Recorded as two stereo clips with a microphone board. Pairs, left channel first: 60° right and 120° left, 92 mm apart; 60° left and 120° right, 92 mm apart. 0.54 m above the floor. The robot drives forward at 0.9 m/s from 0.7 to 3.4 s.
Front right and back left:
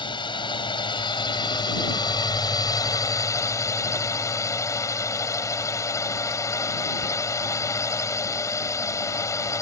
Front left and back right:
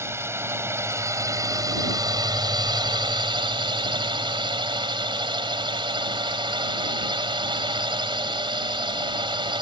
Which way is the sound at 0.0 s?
65° right.